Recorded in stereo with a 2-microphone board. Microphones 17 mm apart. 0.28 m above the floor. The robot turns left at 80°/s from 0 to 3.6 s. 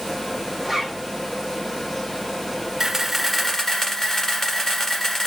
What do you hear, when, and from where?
0.6 s a zipper: 20° right, 4.5 m; by 1.0 s 50° right, 4.5 m
2.8 s a camera shutter: 155° right, 1.7 m; by 5.3 s 140° left, 1.7 m